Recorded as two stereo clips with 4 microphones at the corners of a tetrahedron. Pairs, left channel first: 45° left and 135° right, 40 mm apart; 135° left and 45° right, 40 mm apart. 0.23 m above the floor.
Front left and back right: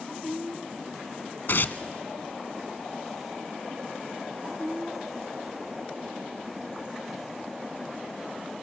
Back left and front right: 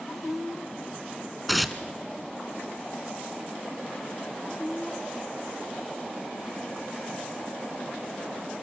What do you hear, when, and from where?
1.5 s tearing paper: 45° left, 0.8 m